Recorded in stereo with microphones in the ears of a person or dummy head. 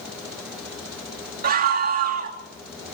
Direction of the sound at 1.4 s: 50° right (ahead or behind).